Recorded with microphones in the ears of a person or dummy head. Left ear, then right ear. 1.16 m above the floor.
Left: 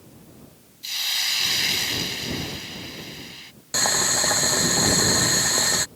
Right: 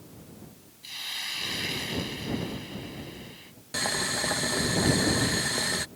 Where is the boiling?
30° left (ahead or behind).